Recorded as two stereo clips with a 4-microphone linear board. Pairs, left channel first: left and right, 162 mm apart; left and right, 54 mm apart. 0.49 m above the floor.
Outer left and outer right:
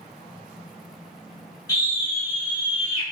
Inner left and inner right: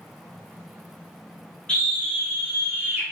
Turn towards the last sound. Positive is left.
turn(degrees=-25)  # may be behind; listen again after turning